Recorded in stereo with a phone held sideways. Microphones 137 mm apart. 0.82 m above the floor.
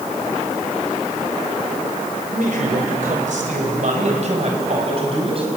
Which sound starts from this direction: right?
A man speaking, at 2.3 s.